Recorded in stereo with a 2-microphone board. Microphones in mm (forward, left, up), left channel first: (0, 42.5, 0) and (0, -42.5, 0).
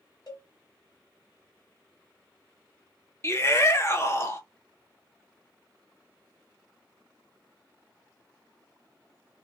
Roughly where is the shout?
Left.